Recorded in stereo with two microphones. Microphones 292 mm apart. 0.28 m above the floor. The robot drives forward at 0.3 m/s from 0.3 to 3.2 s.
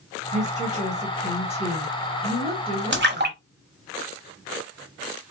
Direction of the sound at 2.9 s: 40° right (ahead or behind).